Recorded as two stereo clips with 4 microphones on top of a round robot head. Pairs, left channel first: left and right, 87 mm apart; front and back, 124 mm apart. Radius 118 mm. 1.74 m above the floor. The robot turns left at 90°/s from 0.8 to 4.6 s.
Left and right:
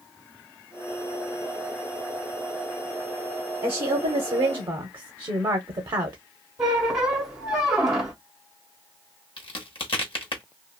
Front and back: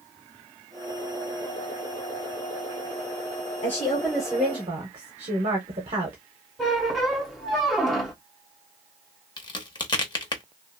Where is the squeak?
85° right, 0.6 m.